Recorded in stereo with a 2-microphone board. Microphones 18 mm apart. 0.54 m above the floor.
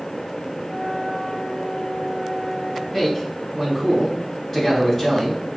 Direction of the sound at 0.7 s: 5° left (ahead or behind).